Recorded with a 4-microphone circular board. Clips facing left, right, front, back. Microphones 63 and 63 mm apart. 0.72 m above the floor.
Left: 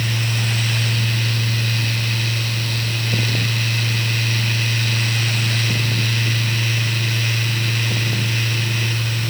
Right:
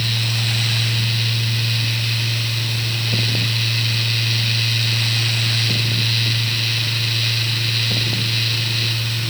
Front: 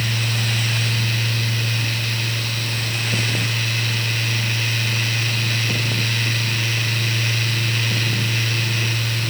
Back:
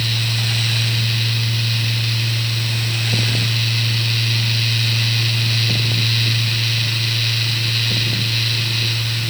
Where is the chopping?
I don't hear chopping.